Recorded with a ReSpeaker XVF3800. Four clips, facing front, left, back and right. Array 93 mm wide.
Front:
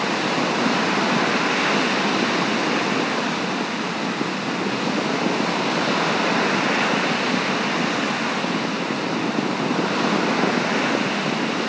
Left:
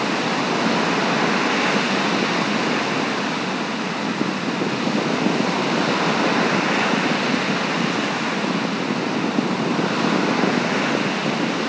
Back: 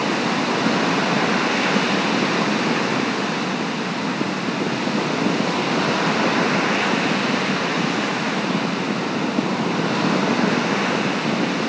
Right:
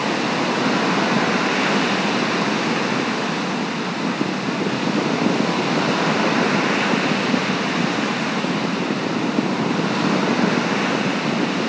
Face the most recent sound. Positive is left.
No sound to turn to.